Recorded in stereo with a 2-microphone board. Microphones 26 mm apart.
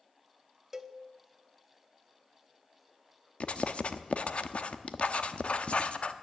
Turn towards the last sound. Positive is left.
turn(degrees=50)  # may be behind; listen again after turning